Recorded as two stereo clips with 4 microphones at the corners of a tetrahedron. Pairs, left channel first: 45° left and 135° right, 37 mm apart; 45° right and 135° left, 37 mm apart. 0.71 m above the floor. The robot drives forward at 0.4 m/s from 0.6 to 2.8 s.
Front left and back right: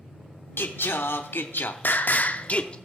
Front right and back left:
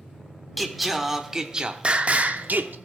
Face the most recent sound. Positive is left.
turn(degrees=105)